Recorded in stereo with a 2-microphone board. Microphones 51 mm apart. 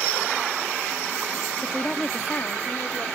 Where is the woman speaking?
Centre (ahead or behind); by 3.1 s 45° left (ahead or behind).